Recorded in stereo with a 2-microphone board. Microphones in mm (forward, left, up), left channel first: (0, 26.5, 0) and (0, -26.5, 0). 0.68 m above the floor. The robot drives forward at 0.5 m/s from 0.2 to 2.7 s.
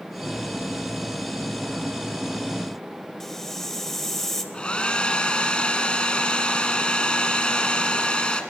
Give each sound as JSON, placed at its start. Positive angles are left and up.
{"t": 3.2, "sound": "a hiss", "side_deg": 5, "distance_m": 1.9}
{"t": 4.5, "sound": "a hair dryer", "side_deg": 20, "distance_m": 1.9}